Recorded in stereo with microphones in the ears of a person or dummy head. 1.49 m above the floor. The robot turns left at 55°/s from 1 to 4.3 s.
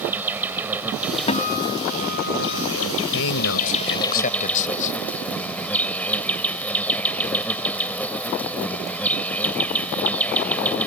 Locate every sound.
0.0 s an insect: 170° right; by 10.9 s 10° left
1.3 s a guitar: 145° left; by 2.7 s 65° left
3.1 s a man speaking: 105° left; by 5.0 s 45° left